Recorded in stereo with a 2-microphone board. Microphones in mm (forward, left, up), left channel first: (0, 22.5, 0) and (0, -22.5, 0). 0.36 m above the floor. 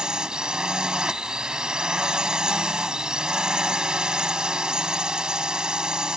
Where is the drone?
15° right (ahead or behind).